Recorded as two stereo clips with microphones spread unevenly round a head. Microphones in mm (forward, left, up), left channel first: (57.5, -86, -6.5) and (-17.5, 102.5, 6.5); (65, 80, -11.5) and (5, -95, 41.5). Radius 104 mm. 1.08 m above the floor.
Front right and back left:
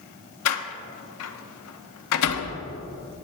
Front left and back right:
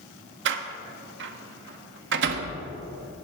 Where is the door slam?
90° right, 1.1 m.